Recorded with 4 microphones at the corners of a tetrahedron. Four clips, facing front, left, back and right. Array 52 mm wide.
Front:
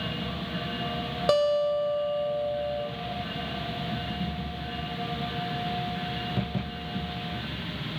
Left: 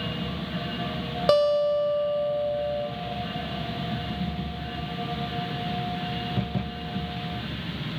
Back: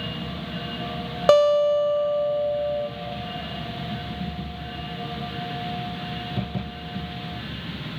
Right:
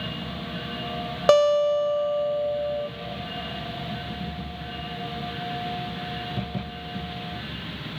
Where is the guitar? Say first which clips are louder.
Right 3 dB, back 7 dB; 150° right, 0.7 m.